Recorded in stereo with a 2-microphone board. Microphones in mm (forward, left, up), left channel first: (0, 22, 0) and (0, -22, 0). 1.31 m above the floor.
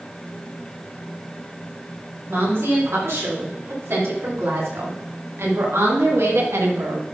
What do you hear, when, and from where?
2.3 s a woman speaking: 75° right (ahead or behind), 4 m; by 7.0 s 80° right, 1.4 m